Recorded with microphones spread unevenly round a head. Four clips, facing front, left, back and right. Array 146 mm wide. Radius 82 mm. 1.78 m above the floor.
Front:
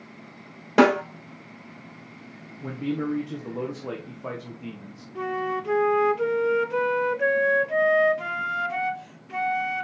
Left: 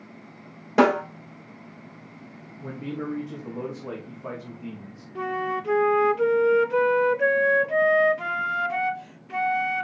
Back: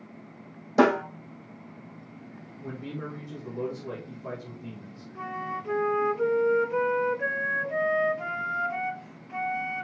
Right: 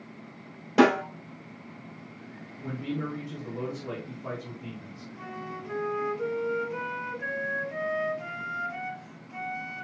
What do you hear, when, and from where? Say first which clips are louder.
0.8 s a snare drum: left 2 dB, front 3 dB; 5° left, 4.5 m
2.6 s a man speaking: left 1 dB, front 9 dB; 10° left, 2 m
5.2 s a flute: left 12 dB, front 6 dB; 45° left, 0.5 m